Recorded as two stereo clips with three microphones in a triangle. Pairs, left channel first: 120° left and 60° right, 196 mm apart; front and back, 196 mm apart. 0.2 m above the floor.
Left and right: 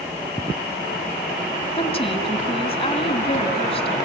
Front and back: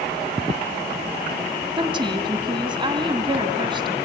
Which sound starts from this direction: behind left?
A woman speaking, at 1.8 s.